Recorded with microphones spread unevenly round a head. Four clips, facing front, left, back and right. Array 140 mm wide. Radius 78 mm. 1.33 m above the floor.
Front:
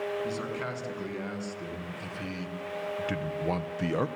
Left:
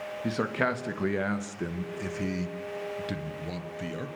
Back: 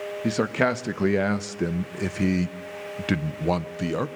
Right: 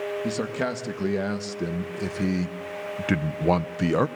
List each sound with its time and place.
0.2 s a man speaking: straight behind, 2.5 m; by 4.1 s 95° right, 1.0 m